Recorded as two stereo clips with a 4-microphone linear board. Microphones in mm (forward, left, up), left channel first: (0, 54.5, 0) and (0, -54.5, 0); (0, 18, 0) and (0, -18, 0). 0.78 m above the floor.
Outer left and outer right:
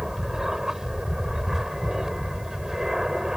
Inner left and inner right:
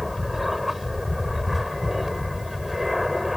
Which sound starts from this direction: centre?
An aircraft, at 0.0 s.